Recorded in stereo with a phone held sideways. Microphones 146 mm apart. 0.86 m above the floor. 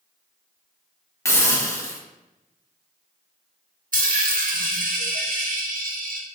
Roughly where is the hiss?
Centre.